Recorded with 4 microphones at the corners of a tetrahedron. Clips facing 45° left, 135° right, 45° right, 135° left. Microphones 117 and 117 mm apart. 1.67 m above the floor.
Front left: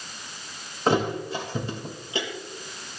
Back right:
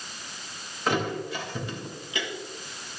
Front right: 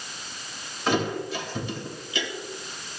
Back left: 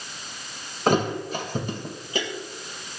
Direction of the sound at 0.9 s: 100° left.